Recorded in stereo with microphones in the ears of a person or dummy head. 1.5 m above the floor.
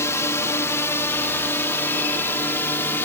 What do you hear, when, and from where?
0.0 s a drone: 15° left (ahead or behind)